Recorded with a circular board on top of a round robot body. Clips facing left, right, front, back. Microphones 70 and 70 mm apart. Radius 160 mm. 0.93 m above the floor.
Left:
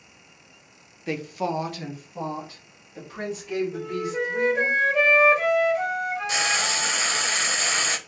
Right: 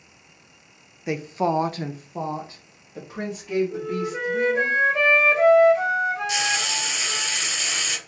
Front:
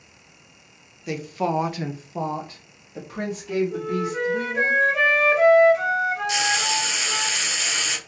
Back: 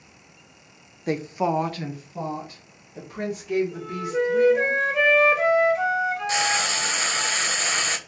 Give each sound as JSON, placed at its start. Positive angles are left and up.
{"t": 1.1, "sound": "a woman speaking", "azimuth_deg": -160, "distance_m": 0.5}
{"t": 3.7, "sound": "a flute", "azimuth_deg": -40, "distance_m": 1.8}
{"t": 6.3, "sound": "frying", "azimuth_deg": 135, "distance_m": 0.5}